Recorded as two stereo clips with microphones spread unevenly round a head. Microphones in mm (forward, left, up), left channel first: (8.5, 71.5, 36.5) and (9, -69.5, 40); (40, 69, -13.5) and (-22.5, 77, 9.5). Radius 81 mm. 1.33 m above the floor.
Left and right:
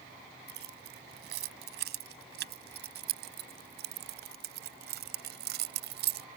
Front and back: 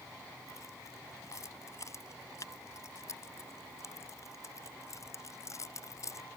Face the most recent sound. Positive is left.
turn(degrees=-80)